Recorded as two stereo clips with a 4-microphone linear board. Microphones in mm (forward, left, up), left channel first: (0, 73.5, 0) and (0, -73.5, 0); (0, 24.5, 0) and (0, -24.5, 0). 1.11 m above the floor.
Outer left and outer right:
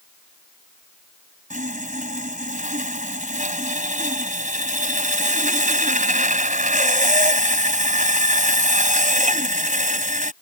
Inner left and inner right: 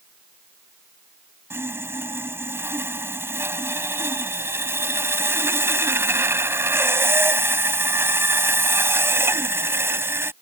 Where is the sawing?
60° right (ahead or behind).